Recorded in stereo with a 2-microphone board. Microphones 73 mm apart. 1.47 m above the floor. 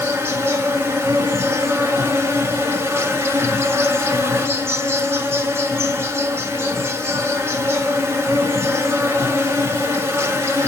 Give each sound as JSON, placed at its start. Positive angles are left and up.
{"t": 0.0, "sound": "an insect", "side_deg": -40, "distance_m": 1.5}